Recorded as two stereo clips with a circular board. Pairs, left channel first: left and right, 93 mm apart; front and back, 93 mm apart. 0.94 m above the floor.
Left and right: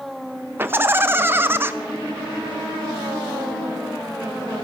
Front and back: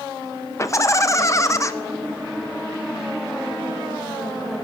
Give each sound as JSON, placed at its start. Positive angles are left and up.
{"t": 0.6, "sound": "laughter", "azimuth_deg": -40, "distance_m": 0.9}